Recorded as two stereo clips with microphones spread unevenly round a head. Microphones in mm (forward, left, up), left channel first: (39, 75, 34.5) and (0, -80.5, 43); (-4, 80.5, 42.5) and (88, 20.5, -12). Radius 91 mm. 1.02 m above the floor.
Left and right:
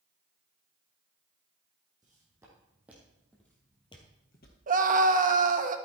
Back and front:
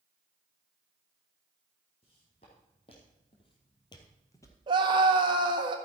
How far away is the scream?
About 1.4 m.